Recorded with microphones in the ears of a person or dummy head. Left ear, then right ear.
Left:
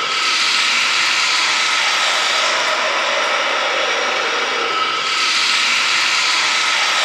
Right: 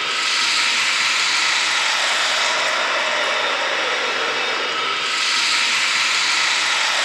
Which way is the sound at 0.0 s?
Centre (ahead or behind).